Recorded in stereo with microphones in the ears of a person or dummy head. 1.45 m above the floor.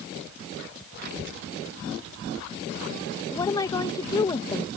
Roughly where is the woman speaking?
Centre.